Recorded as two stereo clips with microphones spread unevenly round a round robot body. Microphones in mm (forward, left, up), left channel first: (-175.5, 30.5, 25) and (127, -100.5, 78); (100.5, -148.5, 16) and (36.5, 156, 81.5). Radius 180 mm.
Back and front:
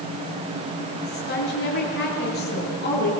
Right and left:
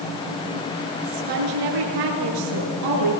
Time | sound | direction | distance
1.0 | a woman speaking | 95° left | 7.5 m